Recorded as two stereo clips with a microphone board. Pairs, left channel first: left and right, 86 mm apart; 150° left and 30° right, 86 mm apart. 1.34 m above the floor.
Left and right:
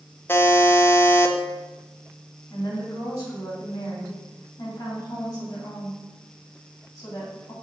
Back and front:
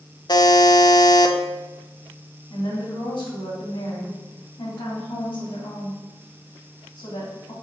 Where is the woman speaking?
140° left, 3.5 m.